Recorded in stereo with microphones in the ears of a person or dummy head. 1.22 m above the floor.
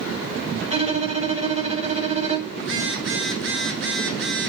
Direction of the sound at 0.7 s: 25° right (ahead or behind).